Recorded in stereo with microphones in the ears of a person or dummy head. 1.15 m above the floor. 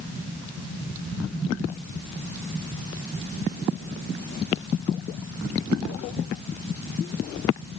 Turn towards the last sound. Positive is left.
No sound to turn to.